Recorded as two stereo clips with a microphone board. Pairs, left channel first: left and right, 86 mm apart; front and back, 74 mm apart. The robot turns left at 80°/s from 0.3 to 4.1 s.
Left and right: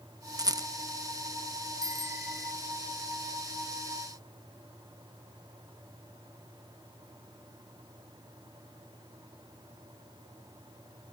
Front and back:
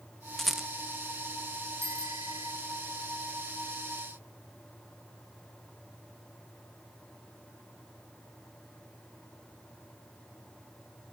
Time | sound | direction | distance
0.4 | a rattle | 80° right | ?
1.8 | a bicycle bell | 130° right | ?